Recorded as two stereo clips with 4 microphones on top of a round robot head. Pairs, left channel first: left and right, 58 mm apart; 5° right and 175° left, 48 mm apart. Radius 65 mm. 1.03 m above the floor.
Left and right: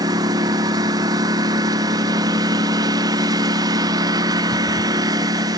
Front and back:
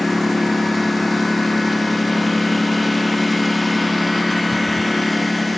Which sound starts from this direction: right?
A lawn mower, at 0.0 s.